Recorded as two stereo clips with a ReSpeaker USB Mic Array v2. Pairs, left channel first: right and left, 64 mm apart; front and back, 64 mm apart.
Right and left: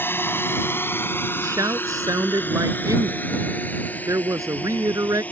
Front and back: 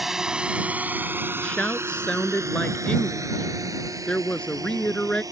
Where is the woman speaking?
70° left.